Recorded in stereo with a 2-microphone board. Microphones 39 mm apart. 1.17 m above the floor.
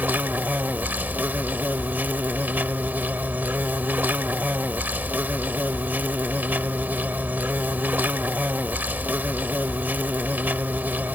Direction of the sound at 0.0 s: 55° right (ahead or behind).